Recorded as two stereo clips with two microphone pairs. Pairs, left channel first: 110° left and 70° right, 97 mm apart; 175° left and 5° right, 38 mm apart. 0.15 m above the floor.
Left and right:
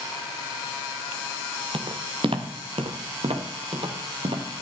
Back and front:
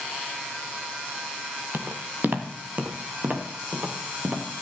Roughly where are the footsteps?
Ahead right.